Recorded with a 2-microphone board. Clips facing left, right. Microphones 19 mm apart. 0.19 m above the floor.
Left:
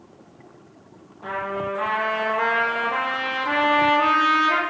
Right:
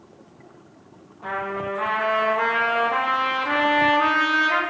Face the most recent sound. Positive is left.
turn(degrees=5)  # may be behind; listen again after turning